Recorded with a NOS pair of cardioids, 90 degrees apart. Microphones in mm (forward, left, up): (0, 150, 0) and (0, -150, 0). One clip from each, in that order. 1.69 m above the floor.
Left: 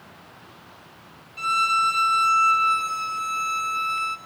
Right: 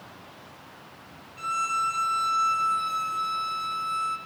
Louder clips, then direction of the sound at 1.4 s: Left 6 dB; 55° left.